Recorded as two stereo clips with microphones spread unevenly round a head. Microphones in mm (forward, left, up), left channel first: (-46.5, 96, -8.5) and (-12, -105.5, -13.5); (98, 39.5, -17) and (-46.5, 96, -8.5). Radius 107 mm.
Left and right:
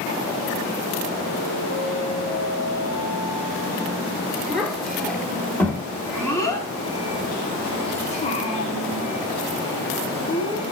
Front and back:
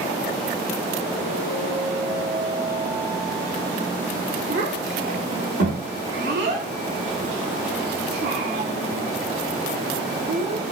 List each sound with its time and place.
4.5 s a child speaking: 170° right, 4.5 m; by 10.6 s 125° left, 3 m